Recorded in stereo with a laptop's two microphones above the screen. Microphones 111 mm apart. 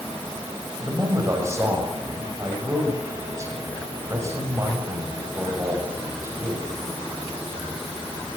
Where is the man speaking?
25° right (ahead or behind), 6.5 m.